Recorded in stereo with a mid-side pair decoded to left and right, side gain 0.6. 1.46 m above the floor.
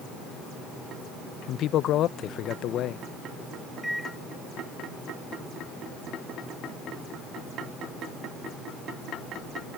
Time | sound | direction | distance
1.5 | a man speaking | 55° left | ?
3.8 | a microwave | straight ahead | ?